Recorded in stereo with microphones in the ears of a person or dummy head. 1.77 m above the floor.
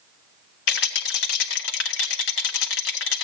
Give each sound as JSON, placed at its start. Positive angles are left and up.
{"t": 0.7, "sound": "a rattle", "side_deg": 65, "distance_m": 1.7}